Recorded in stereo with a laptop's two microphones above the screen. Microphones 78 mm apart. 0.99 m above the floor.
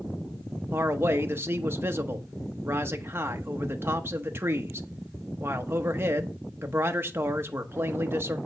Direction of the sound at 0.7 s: 30° right (ahead or behind).